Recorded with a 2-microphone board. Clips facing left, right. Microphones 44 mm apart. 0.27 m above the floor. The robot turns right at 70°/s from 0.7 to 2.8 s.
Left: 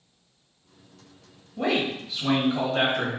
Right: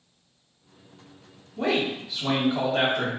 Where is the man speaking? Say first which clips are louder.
Even; 15° left (ahead or behind), 1.5 m; by 3.1 s 15° right (ahead or behind), 1.5 m.